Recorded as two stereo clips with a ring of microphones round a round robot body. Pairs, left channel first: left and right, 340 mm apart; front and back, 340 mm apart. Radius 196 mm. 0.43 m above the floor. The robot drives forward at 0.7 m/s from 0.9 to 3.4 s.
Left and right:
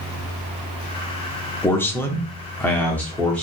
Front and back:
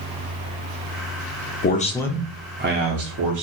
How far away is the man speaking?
About 0.8 m.